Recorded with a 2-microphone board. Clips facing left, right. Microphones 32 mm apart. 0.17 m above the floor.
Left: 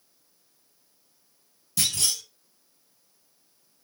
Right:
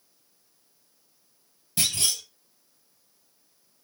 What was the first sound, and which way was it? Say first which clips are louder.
A clunk: even; 30° right (ahead or behind).